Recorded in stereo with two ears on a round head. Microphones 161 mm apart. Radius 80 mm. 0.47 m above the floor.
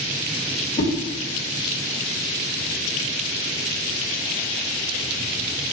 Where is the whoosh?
30° left (ahead or behind), 1.7 m.